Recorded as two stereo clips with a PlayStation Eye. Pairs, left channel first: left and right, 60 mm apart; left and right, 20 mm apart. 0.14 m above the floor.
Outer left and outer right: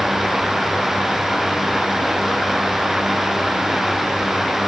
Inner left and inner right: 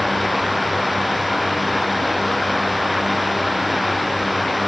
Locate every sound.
Only background noise.